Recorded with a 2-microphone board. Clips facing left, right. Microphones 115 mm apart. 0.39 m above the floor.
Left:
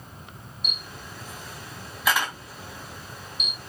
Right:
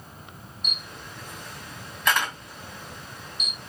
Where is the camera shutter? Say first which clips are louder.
Even; 5° left (ahead or behind), 3.5 m.